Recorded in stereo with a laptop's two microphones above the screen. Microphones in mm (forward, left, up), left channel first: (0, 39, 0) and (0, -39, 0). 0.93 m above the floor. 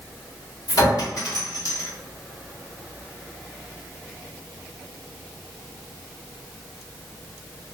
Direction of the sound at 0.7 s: 55° left (ahead or behind).